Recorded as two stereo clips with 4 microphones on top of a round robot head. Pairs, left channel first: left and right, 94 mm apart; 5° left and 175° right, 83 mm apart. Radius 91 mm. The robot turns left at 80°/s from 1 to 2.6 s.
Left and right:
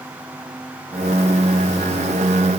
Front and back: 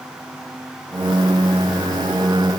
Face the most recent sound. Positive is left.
No sound to turn to.